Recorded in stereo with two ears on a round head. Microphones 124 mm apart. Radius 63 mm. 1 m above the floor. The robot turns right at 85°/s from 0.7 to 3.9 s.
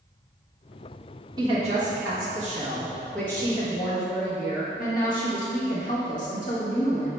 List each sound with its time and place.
1.4 s a woman speaking: 145° right, 1.3 m; by 7.1 s 70° left, 1.3 m